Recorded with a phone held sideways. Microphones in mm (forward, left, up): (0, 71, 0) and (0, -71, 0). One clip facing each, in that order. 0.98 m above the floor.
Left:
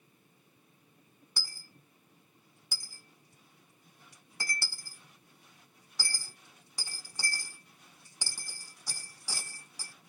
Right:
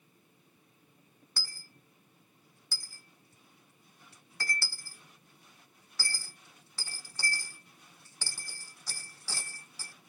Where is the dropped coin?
15° left (ahead or behind), 0.6 m.